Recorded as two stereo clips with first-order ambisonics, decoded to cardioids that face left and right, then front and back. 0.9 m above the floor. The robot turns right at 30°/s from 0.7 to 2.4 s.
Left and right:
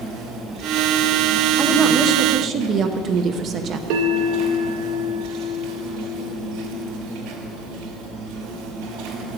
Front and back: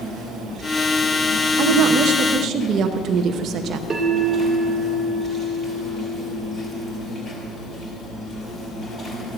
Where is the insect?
120° right, 4 m; by 9.4 s 70° right, 4 m.